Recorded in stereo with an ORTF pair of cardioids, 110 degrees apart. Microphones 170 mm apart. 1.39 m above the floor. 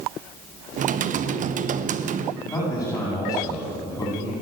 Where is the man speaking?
15° left, 9 m.